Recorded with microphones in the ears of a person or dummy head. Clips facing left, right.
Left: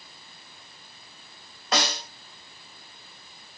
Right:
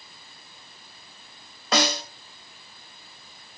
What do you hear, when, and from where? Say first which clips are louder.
1.7 s a snare drum: right 4 dB; 55° right (ahead or behind), 2.5 m